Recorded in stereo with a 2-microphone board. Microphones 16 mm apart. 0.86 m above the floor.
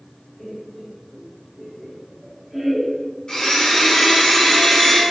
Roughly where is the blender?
Left.